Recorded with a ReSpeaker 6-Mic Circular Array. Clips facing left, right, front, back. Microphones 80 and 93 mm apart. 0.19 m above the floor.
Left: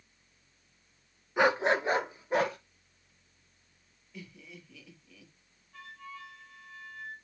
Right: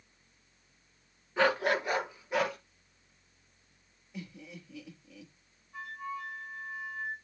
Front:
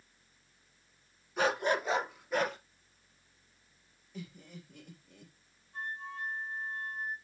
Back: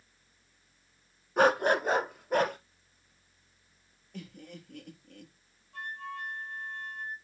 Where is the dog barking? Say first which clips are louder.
Left 2 dB, back 6 dB; 160° left, 0.7 m; by 2.6 s 140° left, 1.7 m.